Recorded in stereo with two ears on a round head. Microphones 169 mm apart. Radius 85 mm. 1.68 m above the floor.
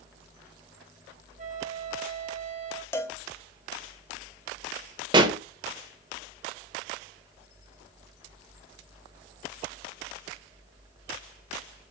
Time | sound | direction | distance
1.4 | a flute | 40° right (ahead or behind) | 1.7 m
2.9 | a cowbell | 15° left (ahead or behind) | 0.7 m
5.1 | a pop | 25° right (ahead or behind) | 1.1 m